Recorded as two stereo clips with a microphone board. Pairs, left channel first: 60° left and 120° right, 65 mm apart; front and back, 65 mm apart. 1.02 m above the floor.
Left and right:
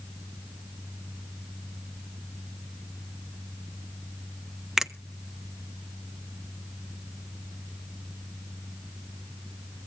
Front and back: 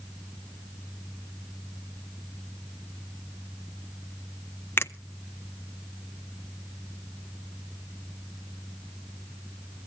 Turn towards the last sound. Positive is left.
turn(degrees=-35)